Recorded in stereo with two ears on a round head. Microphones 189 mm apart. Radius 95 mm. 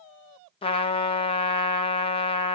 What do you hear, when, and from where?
0.6 s a trumpet: 25° left (ahead or behind), 1.1 m